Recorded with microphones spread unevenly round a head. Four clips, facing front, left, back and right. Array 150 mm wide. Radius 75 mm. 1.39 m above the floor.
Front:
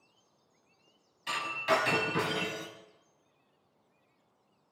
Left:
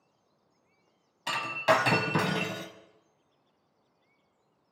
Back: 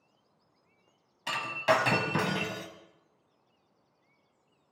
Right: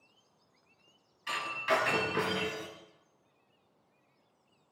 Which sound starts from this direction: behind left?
Breaking glass, at 1.3 s.